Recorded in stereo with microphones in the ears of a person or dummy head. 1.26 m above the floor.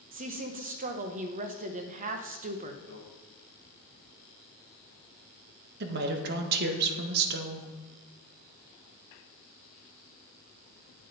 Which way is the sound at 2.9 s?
80° right.